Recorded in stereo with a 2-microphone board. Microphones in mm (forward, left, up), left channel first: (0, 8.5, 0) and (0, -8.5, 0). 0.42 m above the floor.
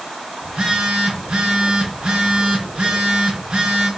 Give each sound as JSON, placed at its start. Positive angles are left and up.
{"t": 0.4, "sound": "a phone buzzing", "side_deg": -75, "distance_m": 4.0}